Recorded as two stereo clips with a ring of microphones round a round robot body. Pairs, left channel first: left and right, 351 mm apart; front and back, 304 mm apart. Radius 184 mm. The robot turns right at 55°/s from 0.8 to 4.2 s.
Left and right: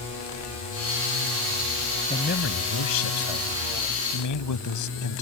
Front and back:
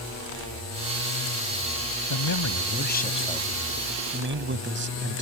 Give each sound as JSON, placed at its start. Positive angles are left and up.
{"t": 2.1, "sound": "a man speaking", "azimuth_deg": 15}